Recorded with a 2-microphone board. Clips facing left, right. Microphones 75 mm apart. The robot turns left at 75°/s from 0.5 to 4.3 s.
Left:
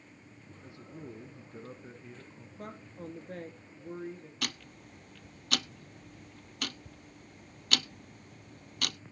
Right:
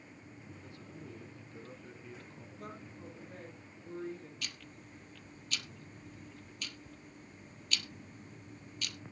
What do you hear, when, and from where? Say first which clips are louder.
0.6 s a man speaking: left 6 dB; 20° left (ahead or behind), 1.7 m; by 2.5 s centre (ahead or behind), 1.7 m
2.6 s a woman speaking: left 4 dB; 130° left, 4 m; by 4.3 s straight ahead, 4 m
4.4 s ticking: left 7 dB; 60° left (ahead or behind), 0.6 m